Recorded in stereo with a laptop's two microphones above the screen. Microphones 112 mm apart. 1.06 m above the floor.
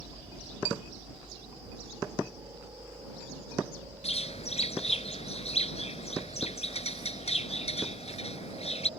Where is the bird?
70° left (ahead or behind).